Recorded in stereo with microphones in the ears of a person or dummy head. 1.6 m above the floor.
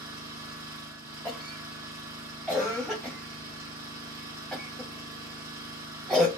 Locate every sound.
0.0 s an engine running: 15° right (ahead or behind), 1.0 m
1.2 s a cough: centre (ahead or behind), 0.6 m